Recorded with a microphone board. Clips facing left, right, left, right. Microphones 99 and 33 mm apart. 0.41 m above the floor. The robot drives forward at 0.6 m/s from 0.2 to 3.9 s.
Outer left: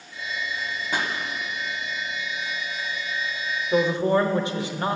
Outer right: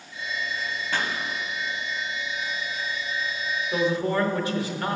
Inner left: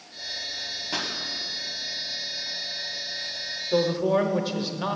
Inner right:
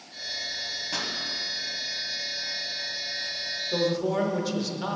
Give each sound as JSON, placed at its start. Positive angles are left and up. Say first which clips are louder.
{"t": 0.9, "sound": "a pop", "louder": "outer left 1 dB, inner left 2 dB", "side_deg": 15, "distance_m": 0.9}
{"t": 3.7, "sound": "a man speaking", "louder": "outer left 4 dB, inner left 4 dB", "side_deg": 20, "distance_m": 0.8}